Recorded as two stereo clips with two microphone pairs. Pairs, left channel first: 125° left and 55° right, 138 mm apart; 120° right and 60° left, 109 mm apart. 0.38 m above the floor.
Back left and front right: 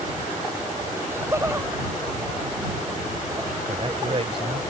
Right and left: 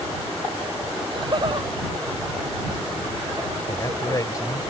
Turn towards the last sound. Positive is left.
turn(degrees=-80)